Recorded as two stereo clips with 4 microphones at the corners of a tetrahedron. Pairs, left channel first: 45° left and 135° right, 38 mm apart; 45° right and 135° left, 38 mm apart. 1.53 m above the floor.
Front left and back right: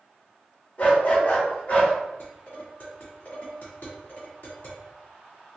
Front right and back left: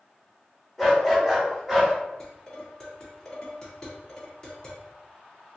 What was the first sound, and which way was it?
A dog barking, 45° left.